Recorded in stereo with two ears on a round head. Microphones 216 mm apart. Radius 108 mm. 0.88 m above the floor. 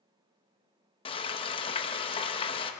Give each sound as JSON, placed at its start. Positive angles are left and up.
{"t": 1.1, "sound": "frying", "side_deg": 20, "distance_m": 0.8}